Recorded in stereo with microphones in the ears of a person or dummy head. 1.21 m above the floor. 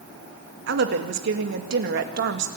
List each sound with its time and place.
0.7 s a woman speaking: 65° right (ahead or behind), 2 m